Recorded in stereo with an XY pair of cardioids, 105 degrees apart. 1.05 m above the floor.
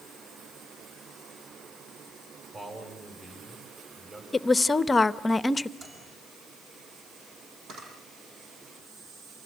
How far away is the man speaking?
About 6.5 m.